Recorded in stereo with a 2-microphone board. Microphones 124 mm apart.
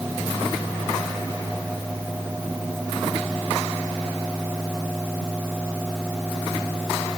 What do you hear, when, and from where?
Only background noise.